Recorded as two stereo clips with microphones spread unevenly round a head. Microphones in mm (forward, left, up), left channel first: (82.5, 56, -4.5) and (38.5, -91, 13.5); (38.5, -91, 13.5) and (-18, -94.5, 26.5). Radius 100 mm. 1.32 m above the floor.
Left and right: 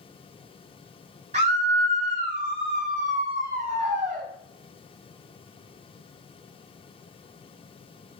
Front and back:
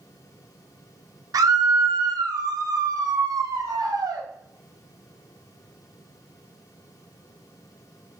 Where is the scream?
170° right, 1.1 m.